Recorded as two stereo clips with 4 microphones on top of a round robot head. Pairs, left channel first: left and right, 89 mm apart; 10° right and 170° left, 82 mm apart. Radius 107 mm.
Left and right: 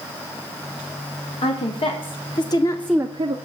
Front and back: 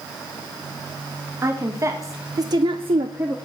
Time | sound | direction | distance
1.4 | a woman speaking | 110° left | 2.5 m